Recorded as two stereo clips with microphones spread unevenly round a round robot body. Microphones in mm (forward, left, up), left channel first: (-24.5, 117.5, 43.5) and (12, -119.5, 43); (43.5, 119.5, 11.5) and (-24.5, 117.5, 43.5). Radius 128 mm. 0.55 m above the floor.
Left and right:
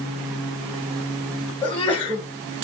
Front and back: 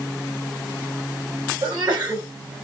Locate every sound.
1.6 s a sneeze: 175° left, 1.2 m